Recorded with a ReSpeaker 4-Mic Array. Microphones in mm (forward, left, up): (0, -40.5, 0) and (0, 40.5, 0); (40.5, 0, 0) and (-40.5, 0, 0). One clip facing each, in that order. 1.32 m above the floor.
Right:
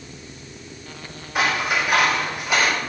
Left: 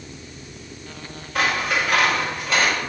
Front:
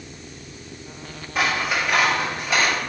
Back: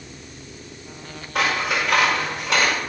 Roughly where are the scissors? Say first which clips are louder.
Even, back 1 dB; behind.